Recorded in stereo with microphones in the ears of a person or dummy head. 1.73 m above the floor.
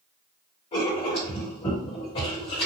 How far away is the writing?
About 1.7 m.